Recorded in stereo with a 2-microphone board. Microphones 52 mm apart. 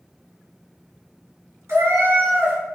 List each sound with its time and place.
1.7 s a cat meowing: 65° right (ahead or behind), 1.2 m